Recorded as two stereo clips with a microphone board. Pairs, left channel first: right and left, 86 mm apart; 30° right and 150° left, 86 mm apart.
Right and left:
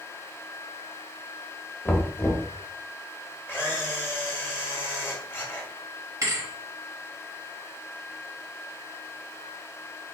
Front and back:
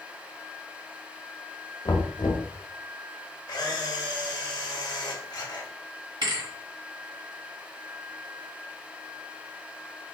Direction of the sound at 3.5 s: 30° right.